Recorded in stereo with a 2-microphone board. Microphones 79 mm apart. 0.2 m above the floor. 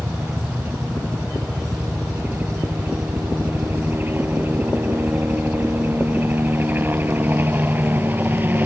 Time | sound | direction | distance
0.0 | a helicopter | 25° right (ahead or behind) | ?